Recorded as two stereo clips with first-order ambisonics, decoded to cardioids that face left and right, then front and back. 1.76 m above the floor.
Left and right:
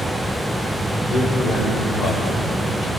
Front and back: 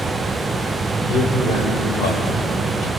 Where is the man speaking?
15° left, 6.5 m.